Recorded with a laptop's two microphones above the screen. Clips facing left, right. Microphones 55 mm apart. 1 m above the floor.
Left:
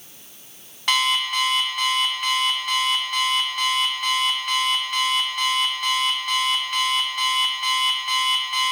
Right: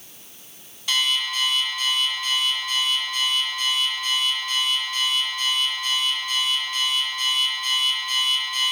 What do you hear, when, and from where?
0.9 s an alarm clock: 70° left (ahead or behind), 1.2 m